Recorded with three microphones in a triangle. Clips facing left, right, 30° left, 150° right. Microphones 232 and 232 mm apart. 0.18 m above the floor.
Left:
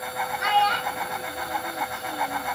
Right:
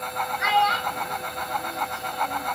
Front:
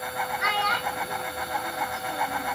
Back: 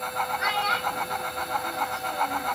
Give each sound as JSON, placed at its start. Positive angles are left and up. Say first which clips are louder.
{"t": 0.4, "sound": "a child speaking", "louder": "even, even", "azimuth_deg": 150, "distance_m": 2.5}